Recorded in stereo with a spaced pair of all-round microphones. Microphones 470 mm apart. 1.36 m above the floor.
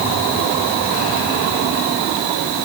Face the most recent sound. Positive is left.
No sound to turn to.